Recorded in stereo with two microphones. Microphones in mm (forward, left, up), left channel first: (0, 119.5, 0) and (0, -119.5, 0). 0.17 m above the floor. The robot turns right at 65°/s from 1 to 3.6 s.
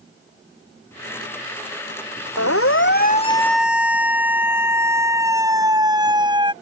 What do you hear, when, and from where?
2.4 s a siren: 80° left; by 6.5 s 20° right (ahead or behind)